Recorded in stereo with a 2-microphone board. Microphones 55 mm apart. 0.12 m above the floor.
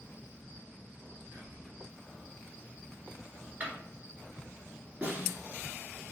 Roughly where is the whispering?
Right.